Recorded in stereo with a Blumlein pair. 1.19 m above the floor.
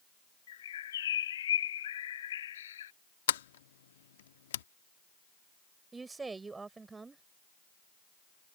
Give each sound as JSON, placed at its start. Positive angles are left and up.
{"t": 0.5, "sound": "a bird", "azimuth_deg": 60}
{"t": 3.3, "sound": "a sliding door", "azimuth_deg": 60}
{"t": 5.9, "sound": "a woman speaking", "azimuth_deg": -10}